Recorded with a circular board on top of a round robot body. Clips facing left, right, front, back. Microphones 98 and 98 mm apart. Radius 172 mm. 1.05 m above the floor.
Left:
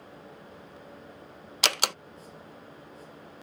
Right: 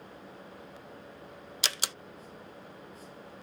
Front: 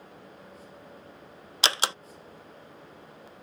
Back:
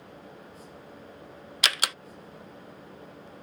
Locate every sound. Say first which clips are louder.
1.6 s a door slam: left 9 dB, front 2 dB; 60° left